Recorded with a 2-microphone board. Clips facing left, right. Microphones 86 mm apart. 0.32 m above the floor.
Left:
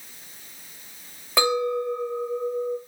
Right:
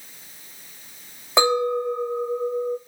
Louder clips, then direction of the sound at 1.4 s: Right 3 dB; 25° right (ahead or behind).